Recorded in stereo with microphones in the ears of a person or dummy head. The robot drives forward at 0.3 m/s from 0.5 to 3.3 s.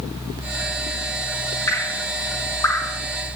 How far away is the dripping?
About 2.5 m.